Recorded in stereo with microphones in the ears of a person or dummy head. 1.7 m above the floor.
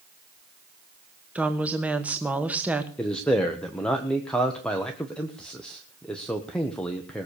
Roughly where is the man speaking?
Centre.